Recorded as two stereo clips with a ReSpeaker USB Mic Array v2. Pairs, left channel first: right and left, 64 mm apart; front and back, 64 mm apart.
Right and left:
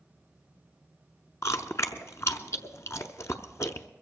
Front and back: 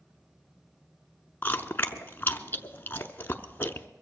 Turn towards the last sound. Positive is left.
turn(degrees=-55)